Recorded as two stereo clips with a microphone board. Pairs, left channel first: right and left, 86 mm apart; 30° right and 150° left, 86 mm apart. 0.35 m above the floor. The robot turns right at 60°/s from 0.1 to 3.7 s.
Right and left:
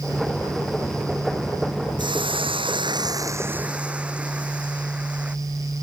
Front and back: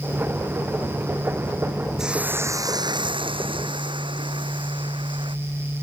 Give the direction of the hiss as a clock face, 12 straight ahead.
10 o'clock.